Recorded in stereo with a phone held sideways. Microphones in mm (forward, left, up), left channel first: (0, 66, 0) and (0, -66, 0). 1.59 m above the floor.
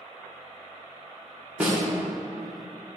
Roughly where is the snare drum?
Centre.